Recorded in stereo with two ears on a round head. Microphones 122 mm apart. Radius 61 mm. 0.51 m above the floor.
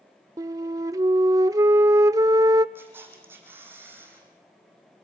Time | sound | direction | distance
0.4 | a flute | 25° right (ahead or behind) | 0.5 m
2.8 | a camera shutter | 15° right (ahead or behind) | 4.5 m